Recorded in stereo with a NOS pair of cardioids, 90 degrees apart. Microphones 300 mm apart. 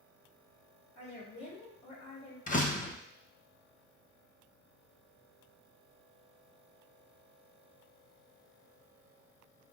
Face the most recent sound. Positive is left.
turn(degrees=25)